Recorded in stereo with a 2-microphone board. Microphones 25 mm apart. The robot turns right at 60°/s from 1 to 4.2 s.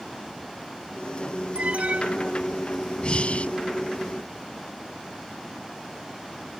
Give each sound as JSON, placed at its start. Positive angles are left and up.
{"t": 1.6, "sound": "an alarm", "azimuth_deg": -125}
{"t": 3.0, "sound": "breathing", "side_deg": 45}